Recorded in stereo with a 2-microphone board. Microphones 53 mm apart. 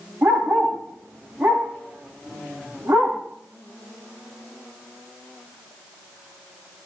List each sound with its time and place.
0.2 s a dog barking: 80° right, 9.5 m